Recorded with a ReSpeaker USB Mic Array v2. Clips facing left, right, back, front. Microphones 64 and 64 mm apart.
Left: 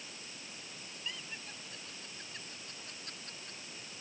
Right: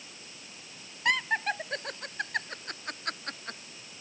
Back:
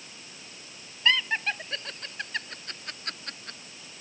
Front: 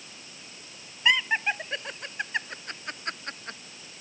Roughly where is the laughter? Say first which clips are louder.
Right 20 dB, front 2 dB; right.